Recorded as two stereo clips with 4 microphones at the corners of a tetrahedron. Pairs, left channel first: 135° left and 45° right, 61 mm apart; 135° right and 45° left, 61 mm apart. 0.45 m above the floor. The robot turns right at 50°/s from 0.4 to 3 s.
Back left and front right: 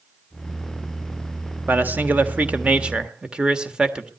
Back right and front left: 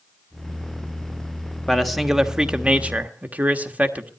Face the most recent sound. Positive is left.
turn(degrees=15)